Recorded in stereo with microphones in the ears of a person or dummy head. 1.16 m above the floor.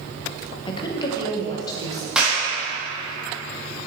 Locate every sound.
0.7 s a woman speaking: 25° left (ahead or behind), 0.7 m; by 2.0 s 20° left (ahead or behind), 1.4 m
2.1 s a clap: 5° right (ahead or behind), 1.5 m